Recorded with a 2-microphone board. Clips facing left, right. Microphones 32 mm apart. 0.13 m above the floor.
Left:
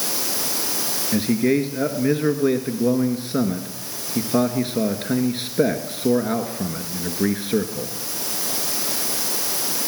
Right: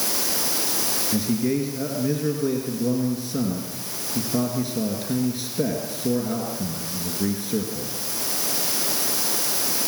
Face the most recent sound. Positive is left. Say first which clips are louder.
# left 5 dB
turn(degrees=50)  # may be behind; listen again after turning